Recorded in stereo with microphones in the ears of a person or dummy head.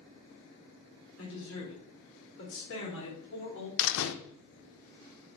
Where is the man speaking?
85° left, 3.5 m; by 3.7 s 65° left (ahead or behind), 4 m.